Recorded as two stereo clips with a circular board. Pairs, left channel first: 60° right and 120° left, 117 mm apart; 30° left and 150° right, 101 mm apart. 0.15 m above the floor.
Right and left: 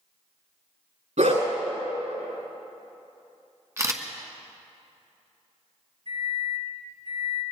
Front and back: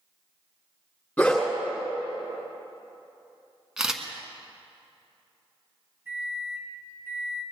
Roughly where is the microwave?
Behind left.